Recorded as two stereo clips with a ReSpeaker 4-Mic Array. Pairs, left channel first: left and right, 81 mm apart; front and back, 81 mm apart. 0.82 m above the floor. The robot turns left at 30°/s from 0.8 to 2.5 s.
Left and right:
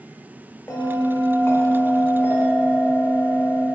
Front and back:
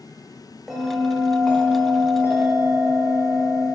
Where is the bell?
95° left, 0.5 m; by 3.6 s 45° left, 0.5 m.